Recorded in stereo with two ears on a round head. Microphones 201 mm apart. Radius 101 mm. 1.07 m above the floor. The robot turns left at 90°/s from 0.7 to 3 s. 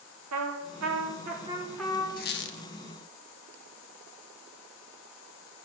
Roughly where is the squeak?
Behind left.